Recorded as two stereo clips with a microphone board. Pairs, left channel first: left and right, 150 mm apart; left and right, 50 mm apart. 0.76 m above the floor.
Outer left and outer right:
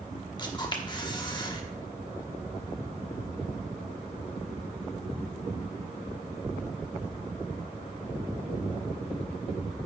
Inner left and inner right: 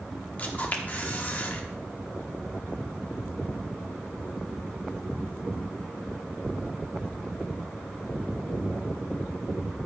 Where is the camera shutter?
30° left (ahead or behind), 1.0 m.